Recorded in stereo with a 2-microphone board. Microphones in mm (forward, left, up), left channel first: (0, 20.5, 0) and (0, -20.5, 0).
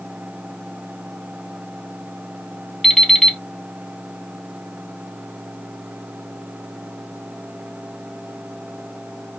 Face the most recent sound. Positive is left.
turn(degrees=5)  # may be behind; listen again after turning